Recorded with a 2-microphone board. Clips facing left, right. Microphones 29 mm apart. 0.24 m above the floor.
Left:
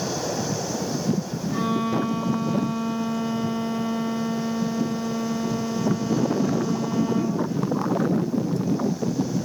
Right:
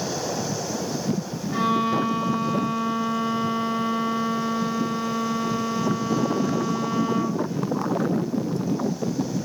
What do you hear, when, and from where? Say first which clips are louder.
1.5 s a violin: right 3 dB; 25° right (ahead or behind), 0.7 m